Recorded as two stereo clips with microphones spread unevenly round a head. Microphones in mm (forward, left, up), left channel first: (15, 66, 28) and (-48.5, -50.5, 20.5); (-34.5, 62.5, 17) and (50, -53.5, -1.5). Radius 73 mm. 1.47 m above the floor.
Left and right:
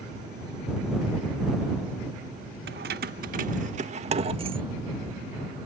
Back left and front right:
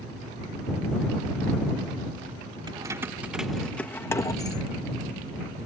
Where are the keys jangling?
120° right; by 4.6 s 170° right.